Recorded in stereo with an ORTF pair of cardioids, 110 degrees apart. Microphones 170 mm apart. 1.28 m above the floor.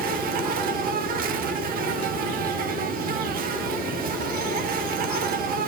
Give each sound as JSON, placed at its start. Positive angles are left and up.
{"t": 0.0, "sound": "an insect", "azimuth_deg": -60, "distance_m": 1.3}